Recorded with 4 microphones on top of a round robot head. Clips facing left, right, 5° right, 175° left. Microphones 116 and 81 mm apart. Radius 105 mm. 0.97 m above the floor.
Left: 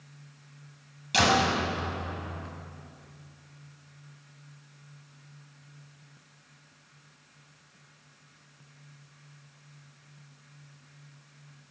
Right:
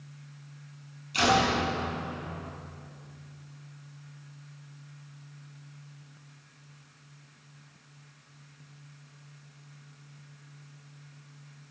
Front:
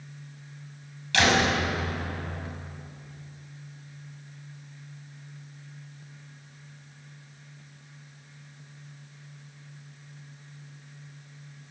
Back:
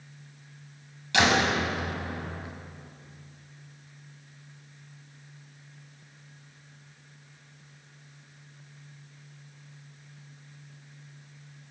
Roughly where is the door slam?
Left.